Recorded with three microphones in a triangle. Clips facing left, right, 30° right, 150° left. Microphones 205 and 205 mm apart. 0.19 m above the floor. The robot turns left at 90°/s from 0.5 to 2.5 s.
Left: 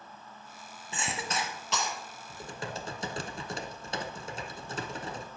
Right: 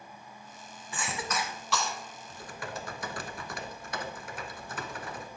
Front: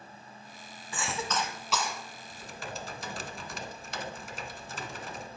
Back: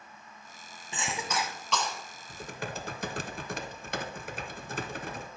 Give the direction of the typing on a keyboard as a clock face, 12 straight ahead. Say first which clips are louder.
Left 2 dB, back 4 dB; 7 o'clock.